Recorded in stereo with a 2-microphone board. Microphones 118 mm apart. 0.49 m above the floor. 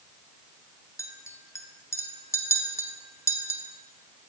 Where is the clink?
25° left (ahead or behind), 0.6 m.